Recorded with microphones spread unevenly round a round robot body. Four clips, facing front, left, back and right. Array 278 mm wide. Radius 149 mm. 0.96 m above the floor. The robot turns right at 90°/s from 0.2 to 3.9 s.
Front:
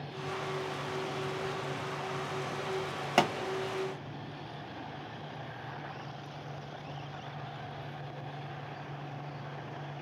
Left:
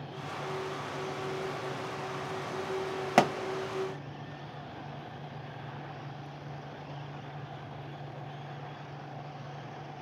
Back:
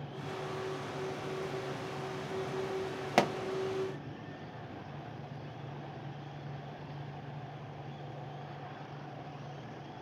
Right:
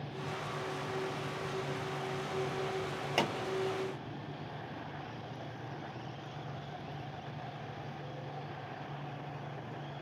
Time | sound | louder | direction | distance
3.2 | a pop | left 9 dB, front 1 dB | 85° left | 1.2 m